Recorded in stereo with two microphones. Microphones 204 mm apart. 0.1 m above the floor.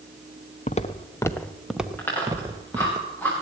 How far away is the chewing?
About 6 m.